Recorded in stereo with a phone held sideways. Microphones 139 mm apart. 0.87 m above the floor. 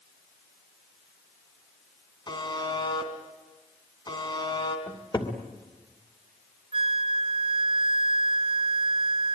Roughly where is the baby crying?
No baby crying in this recording.